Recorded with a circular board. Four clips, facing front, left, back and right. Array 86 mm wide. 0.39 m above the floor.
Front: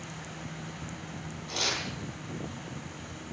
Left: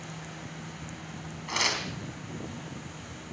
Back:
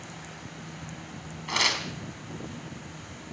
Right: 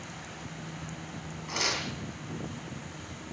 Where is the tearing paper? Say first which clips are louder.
Left 2 dB, back 6 dB; 160° left, 3.5 m.